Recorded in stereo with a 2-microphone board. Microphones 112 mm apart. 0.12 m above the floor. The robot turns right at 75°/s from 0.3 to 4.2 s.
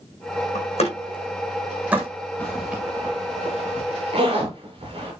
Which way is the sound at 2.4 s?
10° left (ahead or behind).